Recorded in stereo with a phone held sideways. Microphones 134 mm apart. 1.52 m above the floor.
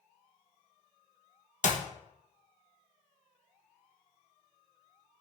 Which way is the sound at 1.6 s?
60° left (ahead or behind).